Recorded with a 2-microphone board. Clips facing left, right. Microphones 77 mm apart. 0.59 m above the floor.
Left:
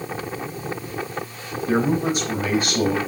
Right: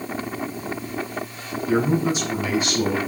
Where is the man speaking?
50° left (ahead or behind), 4 m.